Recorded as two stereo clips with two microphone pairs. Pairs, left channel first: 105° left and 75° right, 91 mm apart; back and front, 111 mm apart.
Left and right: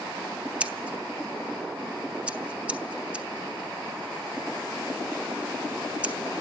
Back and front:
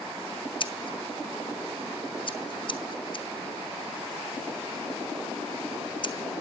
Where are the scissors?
150° right, 0.8 m.